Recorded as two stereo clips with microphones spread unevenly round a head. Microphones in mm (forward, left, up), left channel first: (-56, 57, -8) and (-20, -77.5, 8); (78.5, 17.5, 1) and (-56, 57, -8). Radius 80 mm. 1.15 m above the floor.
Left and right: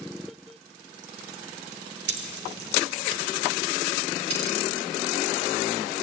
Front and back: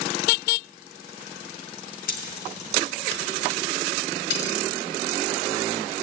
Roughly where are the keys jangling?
Ahead right.